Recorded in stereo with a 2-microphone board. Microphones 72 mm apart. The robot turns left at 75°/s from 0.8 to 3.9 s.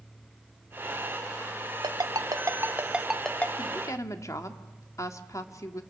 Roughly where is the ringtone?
Right.